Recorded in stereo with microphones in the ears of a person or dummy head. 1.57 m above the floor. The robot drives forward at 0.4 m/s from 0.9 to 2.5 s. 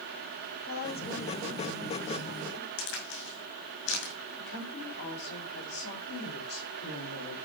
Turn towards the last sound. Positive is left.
turn(degrees=50)  # may be behind; listen again after turning